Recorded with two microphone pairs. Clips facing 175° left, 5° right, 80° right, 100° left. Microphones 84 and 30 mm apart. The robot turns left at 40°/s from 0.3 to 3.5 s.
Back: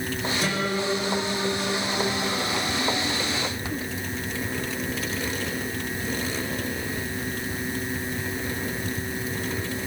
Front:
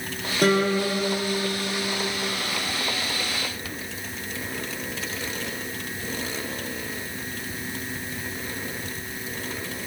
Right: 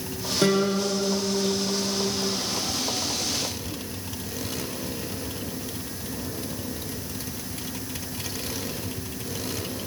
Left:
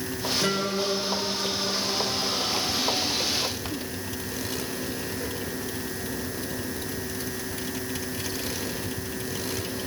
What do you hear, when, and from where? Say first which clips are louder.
0.4 s a guitar: front 8 dB, right 6 dB; 45° right, 7.5 m; by 2.5 s 125° right, 7.5 m